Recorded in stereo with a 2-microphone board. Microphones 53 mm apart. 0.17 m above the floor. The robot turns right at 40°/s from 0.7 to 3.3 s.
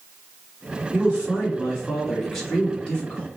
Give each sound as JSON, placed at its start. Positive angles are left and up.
{"t": 0.9, "sound": "a man speaking", "azimuth_deg": -45, "distance_m": 1.4}